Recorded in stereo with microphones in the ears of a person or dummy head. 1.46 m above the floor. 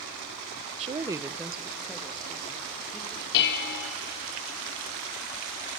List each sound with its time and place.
0.8 s a woman speaking: 30° right (ahead or behind), 0.5 m; by 3.2 s 10° left (ahead or behind), 2.5 m
3.3 s dishes clattering: 60° left (ahead or behind), 1.2 m